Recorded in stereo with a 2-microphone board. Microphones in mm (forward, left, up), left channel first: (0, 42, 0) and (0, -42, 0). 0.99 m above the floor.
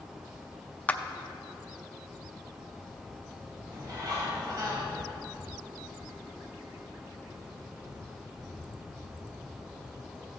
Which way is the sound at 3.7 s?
45° right (ahead or behind).